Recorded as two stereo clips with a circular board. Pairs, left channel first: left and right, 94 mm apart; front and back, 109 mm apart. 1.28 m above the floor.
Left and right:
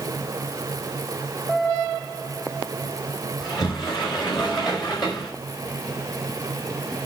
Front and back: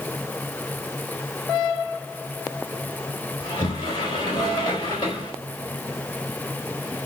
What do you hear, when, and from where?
3.4 s a sliding door: 50° left, 4 m